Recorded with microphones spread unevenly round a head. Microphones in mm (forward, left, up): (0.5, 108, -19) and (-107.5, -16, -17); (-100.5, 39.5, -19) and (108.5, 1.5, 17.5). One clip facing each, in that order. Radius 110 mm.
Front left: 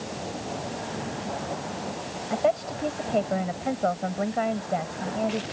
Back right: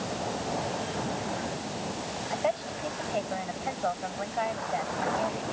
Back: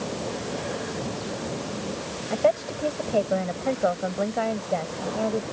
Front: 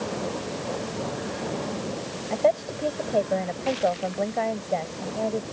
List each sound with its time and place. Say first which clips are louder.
2.3 s a woman speaking: front left 6 dB, even; 85° left